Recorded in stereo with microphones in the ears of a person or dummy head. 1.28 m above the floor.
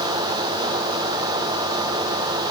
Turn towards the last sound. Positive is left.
No sound to turn to.